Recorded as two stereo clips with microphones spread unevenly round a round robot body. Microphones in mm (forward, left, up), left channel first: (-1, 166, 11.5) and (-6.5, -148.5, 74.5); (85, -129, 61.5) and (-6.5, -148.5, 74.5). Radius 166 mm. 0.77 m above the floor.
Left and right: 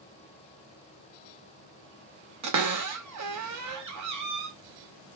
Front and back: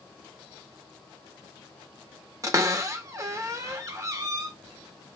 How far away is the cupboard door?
About 1.1 m.